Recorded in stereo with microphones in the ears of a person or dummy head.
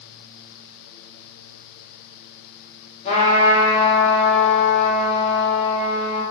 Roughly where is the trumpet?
Left.